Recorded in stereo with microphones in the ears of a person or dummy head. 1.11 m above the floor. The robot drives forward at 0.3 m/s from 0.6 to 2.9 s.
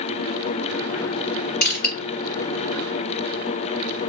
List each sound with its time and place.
1.6 s crushing: 60° left (ahead or behind), 2 m